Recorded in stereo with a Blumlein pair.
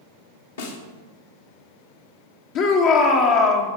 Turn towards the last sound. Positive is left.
turn(degrees=45)